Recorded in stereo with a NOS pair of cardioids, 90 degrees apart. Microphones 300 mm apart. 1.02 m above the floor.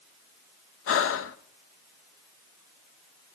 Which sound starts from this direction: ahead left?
Breathing, at 0.9 s.